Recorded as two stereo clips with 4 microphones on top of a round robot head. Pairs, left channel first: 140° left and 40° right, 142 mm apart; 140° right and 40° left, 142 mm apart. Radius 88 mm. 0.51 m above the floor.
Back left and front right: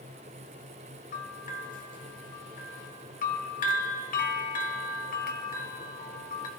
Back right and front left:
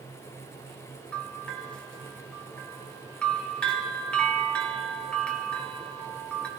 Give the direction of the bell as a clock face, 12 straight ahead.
7 o'clock.